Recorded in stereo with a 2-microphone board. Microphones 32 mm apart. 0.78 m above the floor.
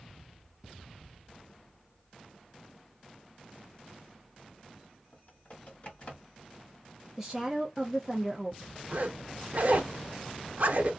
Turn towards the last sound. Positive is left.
turn(degrees=-60)  # may be behind; listen again after turning